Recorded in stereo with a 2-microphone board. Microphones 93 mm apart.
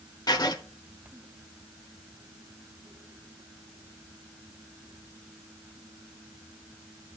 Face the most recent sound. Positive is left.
turn(degrees=45)  # may be behind; listen again after turning